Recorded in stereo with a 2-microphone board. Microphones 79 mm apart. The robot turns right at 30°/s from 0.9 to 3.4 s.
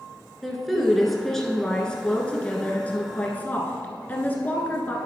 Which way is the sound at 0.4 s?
Centre (ahead or behind).